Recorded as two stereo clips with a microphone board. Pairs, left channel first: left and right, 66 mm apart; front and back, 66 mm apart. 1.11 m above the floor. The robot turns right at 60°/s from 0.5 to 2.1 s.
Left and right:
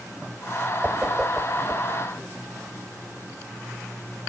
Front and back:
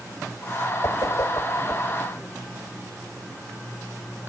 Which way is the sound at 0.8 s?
25° right.